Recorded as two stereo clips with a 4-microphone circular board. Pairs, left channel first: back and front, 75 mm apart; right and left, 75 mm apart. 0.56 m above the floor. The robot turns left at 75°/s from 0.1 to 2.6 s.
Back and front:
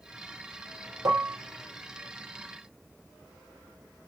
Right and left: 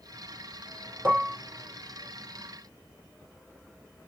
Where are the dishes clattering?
35° left, 0.9 m; by 1.4 s 10° left, 0.9 m.